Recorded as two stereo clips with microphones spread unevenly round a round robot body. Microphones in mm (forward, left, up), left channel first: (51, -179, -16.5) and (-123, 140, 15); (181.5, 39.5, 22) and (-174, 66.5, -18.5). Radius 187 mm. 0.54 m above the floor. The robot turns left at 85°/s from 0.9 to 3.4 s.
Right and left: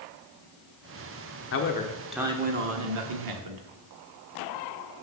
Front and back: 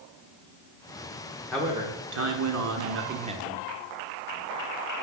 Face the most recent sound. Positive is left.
turn(degrees=105)